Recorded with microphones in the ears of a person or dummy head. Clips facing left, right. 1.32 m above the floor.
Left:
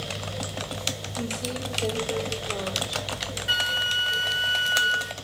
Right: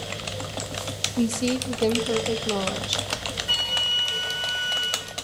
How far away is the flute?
About 1.0 m.